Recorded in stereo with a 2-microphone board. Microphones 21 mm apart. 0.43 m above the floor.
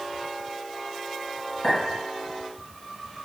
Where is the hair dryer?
No hair dryer in this recording.